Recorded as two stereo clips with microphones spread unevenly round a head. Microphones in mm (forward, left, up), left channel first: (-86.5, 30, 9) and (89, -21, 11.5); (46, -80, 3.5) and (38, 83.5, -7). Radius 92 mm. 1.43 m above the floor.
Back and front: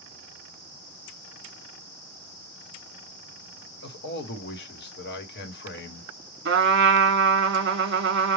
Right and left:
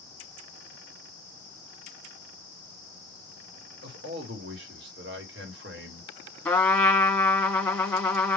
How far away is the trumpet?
About 1.1 m.